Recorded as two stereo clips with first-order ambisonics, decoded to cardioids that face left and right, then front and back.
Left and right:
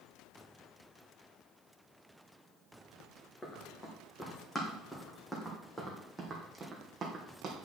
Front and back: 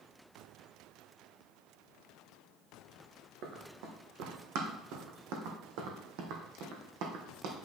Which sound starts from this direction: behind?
Running footsteps, at 3.4 s.